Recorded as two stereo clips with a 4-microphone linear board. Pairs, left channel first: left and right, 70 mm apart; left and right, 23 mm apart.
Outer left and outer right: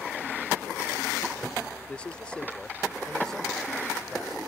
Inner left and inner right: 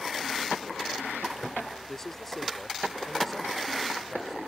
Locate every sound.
1.9 s a man speaking: 20° left (ahead or behind); by 4.4 s 5° left (ahead or behind)